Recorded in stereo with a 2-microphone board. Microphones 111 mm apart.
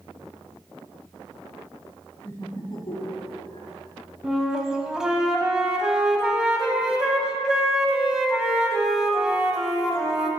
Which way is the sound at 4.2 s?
5° right (ahead or behind).